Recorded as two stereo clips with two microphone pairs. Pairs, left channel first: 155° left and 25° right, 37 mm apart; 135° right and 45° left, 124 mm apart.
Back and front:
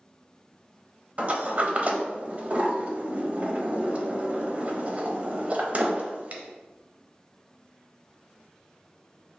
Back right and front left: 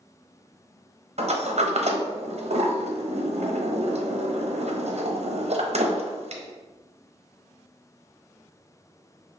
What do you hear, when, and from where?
1.2 s a sliding door: 20° left, 0.6 m